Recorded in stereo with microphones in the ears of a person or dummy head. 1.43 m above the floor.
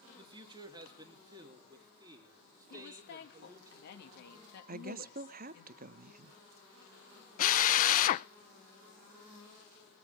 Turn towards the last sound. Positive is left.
turn(degrees=45)  # may be behind; listen again after turning